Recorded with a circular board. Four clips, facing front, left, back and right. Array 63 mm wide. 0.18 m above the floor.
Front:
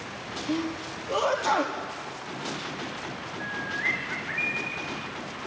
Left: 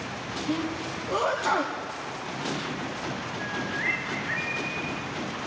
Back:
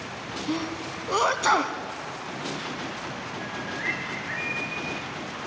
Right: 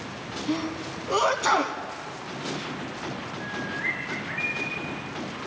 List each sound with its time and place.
0.5 s a sneeze: 150° right, 1.3 m
3.4 s a bird: 120° left, 4 m